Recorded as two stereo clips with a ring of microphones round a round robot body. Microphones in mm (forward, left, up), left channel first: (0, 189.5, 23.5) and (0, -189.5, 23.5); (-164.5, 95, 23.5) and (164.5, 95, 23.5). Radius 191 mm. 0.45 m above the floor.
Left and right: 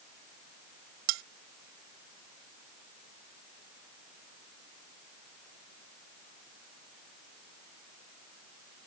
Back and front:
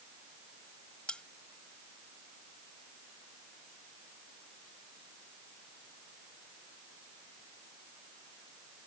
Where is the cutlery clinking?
95° right.